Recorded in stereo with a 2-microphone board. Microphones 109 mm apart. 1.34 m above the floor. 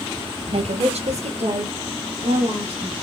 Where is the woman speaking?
65° right (ahead or behind), 0.6 m; by 2.9 s 75° right (ahead or behind), 1.9 m.